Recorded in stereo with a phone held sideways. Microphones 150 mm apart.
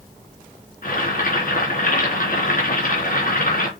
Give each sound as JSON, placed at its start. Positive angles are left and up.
{"t": 0.8, "sound": "boiling", "side_deg": 70, "distance_m": 3.5}